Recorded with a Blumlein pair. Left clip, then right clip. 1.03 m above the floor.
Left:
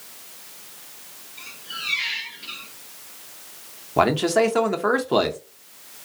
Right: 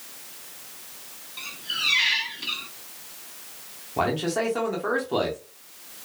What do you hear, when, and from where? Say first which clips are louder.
1.4 s a squeak: right 5 dB; 55° right, 1.0 m
4.0 s a man speaking: left 6 dB; 25° left, 0.8 m